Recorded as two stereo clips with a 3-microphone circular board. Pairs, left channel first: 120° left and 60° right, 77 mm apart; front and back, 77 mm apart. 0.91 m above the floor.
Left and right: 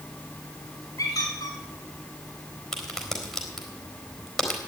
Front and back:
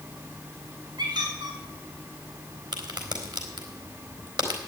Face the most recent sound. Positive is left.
turn(degrees=-155)